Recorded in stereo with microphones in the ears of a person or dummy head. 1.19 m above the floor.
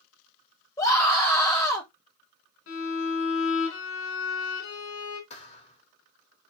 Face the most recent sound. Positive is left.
turn(degrees=35)  # may be behind; listen again after turning